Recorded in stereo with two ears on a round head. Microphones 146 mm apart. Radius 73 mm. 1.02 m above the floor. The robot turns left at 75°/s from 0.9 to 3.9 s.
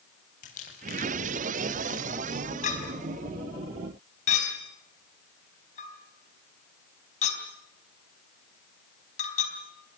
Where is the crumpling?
45° left (ahead or behind), 7 m; by 2.7 s 5° right (ahead or behind), 7 m.